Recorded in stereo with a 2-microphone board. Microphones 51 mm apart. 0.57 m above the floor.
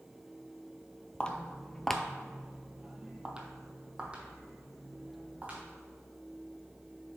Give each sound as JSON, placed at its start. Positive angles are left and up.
{"t": 1.2, "sound": "footsteps", "side_deg": 20, "distance_m": 0.7}